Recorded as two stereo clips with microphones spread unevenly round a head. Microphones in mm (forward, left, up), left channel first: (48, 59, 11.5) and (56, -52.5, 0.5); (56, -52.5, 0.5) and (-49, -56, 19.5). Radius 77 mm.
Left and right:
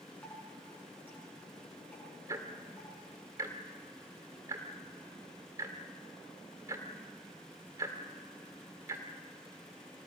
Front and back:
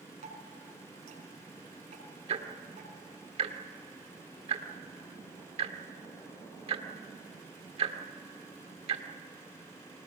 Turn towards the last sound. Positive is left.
turn(degrees=-160)